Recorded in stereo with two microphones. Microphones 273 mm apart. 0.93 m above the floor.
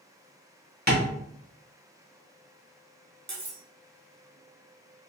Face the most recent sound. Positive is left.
turn(degrees=-75)  # may be behind; listen again after turning